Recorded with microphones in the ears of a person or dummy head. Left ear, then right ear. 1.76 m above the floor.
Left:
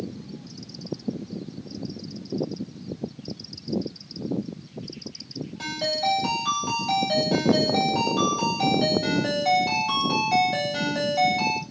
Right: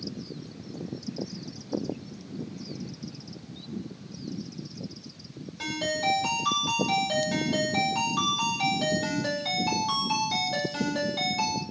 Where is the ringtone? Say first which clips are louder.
Left 3 dB; centre (ahead or behind), 1.9 m.